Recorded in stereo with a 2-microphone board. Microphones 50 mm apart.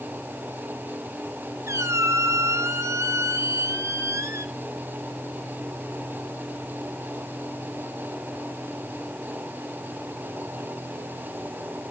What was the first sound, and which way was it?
A squeak, 75° right (ahead or behind).